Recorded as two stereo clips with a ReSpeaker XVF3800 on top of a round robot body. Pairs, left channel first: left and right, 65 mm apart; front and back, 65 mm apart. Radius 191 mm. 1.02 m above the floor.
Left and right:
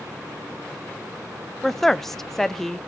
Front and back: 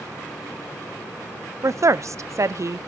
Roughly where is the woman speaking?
Behind.